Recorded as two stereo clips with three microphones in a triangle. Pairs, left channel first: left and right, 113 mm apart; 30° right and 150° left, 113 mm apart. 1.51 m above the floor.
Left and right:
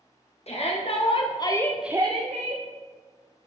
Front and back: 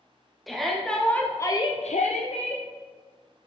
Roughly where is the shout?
Ahead left.